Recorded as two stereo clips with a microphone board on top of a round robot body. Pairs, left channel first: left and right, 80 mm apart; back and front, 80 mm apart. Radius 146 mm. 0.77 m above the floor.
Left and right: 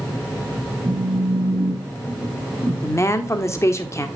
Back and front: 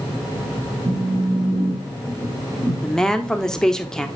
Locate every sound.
0.8 s a phone buzzing: 30° right, 4.5 m
2.8 s a woman speaking: 100° left, 1.2 m